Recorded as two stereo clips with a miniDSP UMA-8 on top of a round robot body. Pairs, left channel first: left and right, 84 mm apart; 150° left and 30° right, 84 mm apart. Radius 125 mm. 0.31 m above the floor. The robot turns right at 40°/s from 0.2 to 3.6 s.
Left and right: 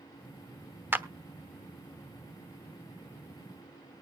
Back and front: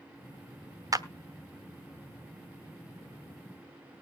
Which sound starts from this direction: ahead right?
A clap, at 0.9 s.